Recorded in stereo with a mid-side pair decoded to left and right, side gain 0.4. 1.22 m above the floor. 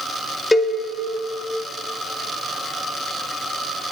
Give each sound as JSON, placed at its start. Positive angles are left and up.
{"t": 0.5, "sound": "a cowbell", "azimuth_deg": 20, "distance_m": 1.3}